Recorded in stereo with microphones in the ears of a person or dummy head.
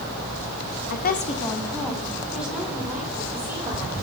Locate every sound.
0.9 s a woman speaking: 55° left (ahead or behind), 0.8 m; by 4.0 s 15° right (ahead or behind), 3.5 m